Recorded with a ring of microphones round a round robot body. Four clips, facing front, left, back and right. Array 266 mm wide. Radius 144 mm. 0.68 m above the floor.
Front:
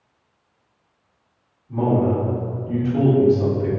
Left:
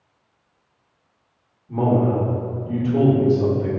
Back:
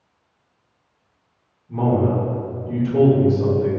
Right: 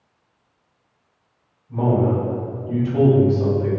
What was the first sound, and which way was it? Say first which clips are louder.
A man speaking: even, even; 105° left.